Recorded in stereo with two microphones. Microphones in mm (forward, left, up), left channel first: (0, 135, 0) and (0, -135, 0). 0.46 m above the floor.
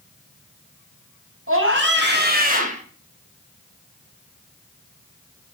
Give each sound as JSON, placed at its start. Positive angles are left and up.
{"t": 1.5, "sound": "a scream", "side_deg": -45, "distance_m": 3.5}